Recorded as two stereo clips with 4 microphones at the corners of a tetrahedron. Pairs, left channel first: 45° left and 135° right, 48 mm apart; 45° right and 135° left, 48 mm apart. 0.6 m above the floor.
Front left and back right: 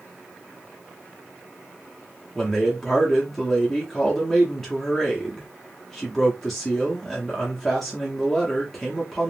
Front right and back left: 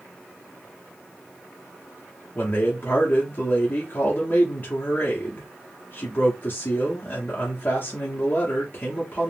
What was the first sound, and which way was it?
A man speaking, 35° right.